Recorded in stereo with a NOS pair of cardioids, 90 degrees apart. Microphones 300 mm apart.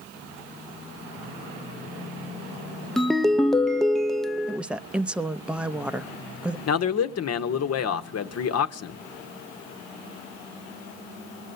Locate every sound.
3.0 s a ringtone: straight ahead, 0.8 m
4.5 s a woman speaking: 5° right, 0.9 m
6.7 s a man speaking: 60° left, 1.5 m